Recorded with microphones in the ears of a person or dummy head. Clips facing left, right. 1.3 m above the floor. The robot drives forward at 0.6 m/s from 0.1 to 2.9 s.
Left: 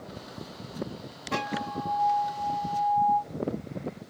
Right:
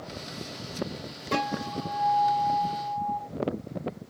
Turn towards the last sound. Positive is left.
turn(degrees=-35)  # may be behind; listen again after turning